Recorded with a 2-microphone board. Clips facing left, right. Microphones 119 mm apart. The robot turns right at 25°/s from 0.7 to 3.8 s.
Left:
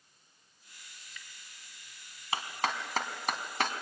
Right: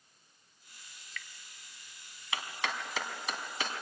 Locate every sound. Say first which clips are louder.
1.0 s dripping: right 6 dB; 15° left (ahead or behind), 1.0 m; by 1.3 s 20° left (ahead or behind), 1.0 m
2.3 s a clap: left 4 dB; 35° left (ahead or behind), 2 m; by 3.8 s 60° left (ahead or behind), 2 m